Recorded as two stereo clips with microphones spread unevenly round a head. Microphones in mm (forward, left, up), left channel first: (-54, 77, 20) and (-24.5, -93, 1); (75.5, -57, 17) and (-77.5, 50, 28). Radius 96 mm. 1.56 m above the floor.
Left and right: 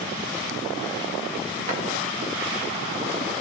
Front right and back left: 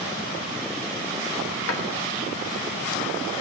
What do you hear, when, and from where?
1.7 s a drawer: 25° right, 1.3 m